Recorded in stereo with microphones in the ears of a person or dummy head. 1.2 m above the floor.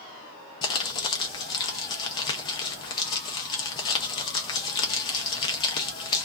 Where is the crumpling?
25° left (ahead or behind), 0.5 m.